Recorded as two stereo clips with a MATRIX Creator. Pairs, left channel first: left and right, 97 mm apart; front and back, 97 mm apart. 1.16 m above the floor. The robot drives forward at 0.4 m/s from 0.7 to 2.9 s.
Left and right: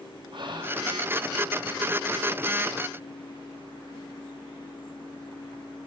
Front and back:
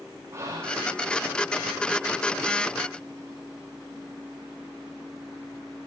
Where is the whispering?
120° right, 5.5 m; by 0.9 s 125° right, 5.5 m.